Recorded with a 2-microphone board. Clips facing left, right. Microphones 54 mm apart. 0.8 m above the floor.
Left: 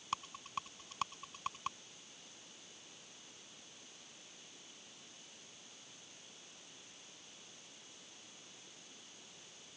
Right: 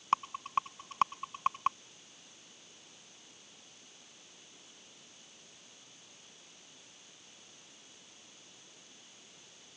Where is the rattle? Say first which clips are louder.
Right 11 dB; 45° right (ahead or behind).